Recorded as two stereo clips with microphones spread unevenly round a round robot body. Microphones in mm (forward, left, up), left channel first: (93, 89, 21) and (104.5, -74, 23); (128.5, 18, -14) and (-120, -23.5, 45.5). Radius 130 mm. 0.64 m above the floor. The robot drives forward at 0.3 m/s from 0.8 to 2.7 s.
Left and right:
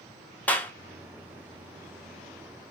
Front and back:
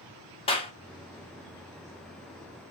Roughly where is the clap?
Ahead left.